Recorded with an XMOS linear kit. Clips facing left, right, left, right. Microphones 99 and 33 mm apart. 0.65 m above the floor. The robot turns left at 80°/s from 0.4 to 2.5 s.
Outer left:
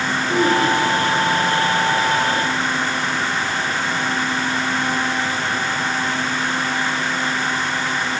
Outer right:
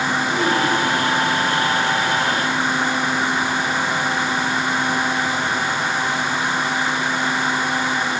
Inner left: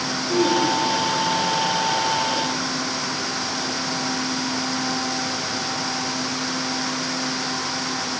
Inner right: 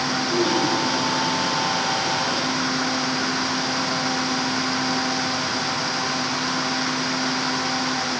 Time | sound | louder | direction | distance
0.3 | throat clearing | outer left 5 dB, inner left 3 dB | 45° left (ahead or behind) | 8.5 m